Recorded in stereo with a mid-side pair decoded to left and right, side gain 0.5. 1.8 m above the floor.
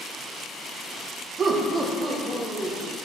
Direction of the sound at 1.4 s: 45° right.